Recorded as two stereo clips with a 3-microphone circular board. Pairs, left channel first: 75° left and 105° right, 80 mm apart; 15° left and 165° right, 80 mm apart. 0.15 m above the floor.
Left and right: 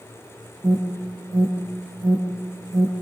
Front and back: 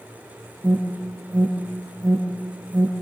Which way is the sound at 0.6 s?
110° right.